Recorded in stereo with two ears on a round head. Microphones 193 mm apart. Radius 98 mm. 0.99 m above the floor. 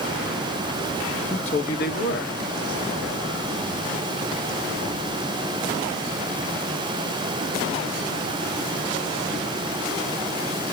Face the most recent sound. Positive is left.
turn(degrees=65)  # may be behind; listen again after turning